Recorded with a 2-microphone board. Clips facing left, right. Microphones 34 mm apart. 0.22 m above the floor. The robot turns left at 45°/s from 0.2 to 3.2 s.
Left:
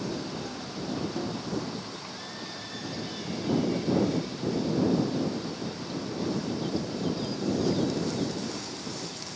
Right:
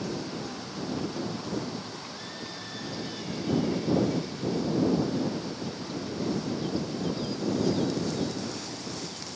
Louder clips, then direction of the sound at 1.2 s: Left 1 dB; 10° left (ahead or behind).